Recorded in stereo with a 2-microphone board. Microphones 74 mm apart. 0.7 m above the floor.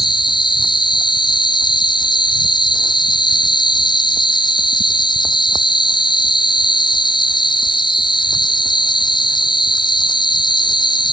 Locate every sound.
0.0 s an insect: 85° left